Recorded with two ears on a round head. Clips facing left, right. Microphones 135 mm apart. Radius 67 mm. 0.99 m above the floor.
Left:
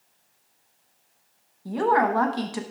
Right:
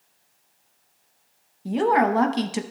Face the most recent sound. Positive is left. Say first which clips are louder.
# right 2 dB
turn(degrees=-25)  # may be behind; listen again after turning